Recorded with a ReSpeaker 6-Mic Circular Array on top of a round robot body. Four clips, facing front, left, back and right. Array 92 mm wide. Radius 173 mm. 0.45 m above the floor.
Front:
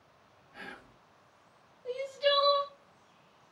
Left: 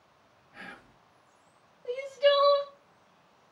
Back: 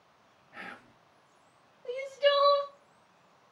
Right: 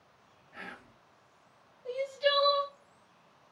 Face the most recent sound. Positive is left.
turn(degrees=135)